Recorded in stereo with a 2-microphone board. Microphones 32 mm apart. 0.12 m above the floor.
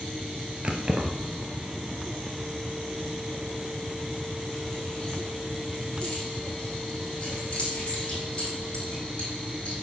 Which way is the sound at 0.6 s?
35° right (ahead or behind).